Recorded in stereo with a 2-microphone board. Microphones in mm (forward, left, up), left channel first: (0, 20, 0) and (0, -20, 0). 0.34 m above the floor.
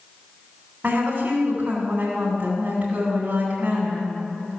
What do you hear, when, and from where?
0.8 s a woman speaking: 35° right (ahead or behind), 3 m